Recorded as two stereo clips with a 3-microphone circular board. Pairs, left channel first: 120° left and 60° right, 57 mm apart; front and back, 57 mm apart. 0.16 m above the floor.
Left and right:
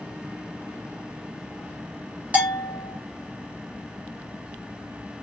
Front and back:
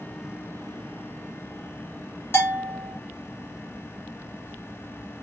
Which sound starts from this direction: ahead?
A bell, at 2.3 s.